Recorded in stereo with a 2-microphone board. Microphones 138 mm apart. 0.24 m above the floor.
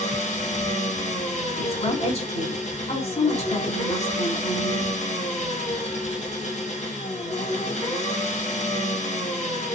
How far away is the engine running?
About 1.9 m.